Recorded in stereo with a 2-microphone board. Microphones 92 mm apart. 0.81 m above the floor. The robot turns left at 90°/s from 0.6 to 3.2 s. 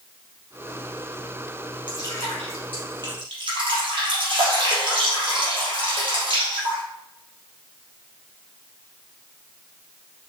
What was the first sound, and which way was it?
Dripping, 60° left.